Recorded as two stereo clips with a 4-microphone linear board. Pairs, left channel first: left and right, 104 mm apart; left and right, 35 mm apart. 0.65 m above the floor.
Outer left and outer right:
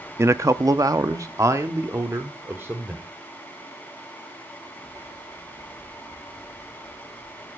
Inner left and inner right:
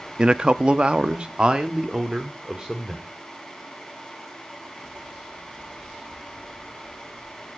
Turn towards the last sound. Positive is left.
turn(degrees=-20)  # may be behind; listen again after turning